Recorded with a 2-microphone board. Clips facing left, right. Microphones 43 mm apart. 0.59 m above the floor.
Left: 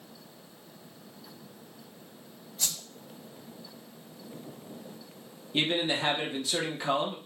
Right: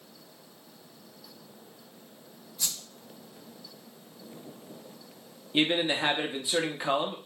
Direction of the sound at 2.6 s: 50° left (ahead or behind).